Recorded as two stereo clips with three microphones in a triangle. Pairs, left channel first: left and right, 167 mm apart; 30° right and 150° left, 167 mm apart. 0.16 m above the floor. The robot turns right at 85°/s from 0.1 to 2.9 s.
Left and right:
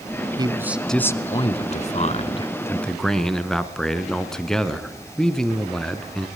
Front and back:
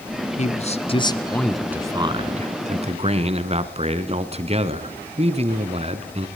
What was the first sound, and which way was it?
A man speaking, 40° right.